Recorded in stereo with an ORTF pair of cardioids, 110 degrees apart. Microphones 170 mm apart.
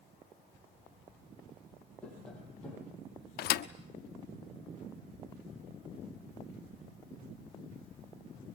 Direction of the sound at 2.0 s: 5° left.